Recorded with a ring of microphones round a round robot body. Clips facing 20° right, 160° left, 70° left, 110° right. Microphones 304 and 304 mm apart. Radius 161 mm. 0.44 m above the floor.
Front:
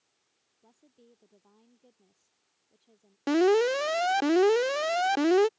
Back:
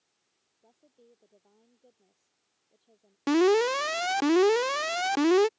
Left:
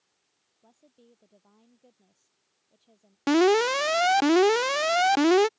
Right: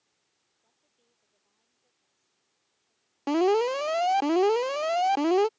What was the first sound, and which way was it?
A woman speaking, 45° left.